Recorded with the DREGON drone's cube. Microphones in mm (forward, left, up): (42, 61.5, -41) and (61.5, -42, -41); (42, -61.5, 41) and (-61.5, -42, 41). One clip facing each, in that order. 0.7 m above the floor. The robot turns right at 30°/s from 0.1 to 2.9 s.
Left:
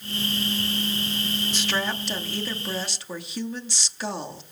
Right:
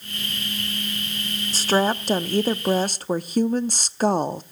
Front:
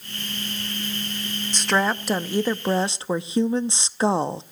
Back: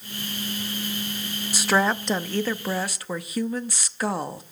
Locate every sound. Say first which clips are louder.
1.5 s a woman speaking: right 11 dB, back 1 dB; 110° right, 0.7 m; by 4.4 s 70° right, 0.7 m